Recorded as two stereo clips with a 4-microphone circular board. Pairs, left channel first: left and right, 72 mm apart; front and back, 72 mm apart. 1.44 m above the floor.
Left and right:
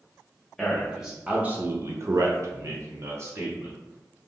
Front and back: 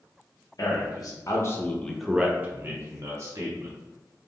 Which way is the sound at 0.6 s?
Straight ahead.